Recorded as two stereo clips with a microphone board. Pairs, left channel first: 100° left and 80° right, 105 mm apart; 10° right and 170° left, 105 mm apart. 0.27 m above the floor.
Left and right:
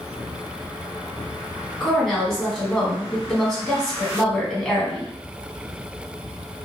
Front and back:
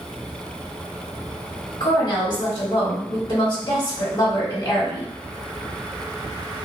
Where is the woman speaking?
15° left, 1.7 m.